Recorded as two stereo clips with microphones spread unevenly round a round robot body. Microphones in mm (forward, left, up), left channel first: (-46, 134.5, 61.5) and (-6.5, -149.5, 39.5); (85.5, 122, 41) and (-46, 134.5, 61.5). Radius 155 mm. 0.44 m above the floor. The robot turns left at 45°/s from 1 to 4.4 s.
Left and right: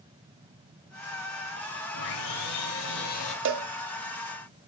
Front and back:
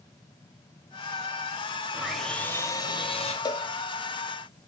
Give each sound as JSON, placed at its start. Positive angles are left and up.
{"t": 1.9, "sound": "sawing", "azimuth_deg": 90, "distance_m": 1.8}
{"t": 3.5, "sound": "a cowbell", "azimuth_deg": -50, "distance_m": 0.7}